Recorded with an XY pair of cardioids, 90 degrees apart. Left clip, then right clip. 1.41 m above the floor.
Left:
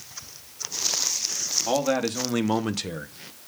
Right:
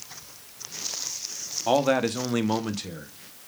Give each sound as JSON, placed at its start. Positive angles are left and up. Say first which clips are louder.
{"t": 1.7, "sound": "a man speaking", "louder": "right 4 dB", "azimuth_deg": -35, "distance_m": 1.0}